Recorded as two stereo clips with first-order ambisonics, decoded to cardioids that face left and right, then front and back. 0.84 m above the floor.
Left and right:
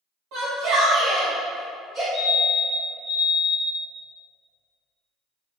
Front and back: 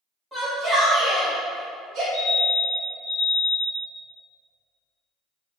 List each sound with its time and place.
0.3 s a shout: 100° right, 1.4 m; by 2.0 s 155° right, 1.4 m
2.1 s a fire alarm: 30° right, 1.7 m